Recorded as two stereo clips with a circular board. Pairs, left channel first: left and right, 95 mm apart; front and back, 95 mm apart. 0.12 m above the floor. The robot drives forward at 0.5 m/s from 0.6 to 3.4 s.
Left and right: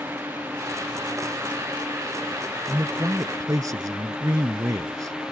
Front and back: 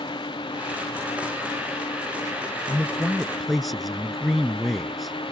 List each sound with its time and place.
0.0 s a drone: 20° right; by 5.3 s 10° right
2.7 s a man speaking: 65° right; by 5.3 s 90° right